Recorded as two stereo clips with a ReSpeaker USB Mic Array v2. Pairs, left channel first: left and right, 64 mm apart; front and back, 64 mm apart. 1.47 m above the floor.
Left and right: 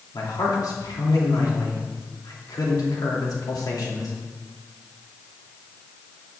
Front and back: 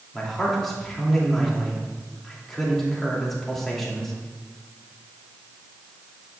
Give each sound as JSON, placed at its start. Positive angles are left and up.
{"t": 0.1, "sound": "a man speaking", "azimuth_deg": 85, "distance_m": 2.5}